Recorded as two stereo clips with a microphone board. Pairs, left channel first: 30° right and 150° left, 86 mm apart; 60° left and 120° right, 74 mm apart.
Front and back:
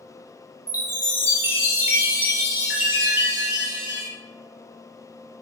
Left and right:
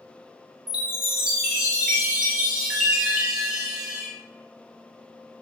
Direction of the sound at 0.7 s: 165° left.